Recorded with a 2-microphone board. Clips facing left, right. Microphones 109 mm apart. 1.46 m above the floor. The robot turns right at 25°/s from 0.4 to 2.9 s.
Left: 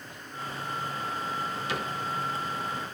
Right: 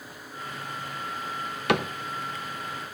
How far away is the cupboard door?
About 0.8 m.